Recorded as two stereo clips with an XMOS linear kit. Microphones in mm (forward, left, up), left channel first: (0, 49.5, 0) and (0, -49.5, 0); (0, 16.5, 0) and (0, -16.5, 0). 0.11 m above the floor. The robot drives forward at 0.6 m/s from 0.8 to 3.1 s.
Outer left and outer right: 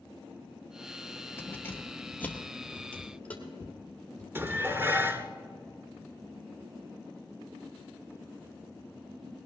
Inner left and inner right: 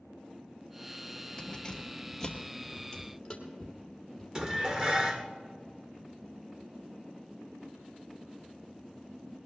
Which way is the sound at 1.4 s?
25° left (ahead or behind).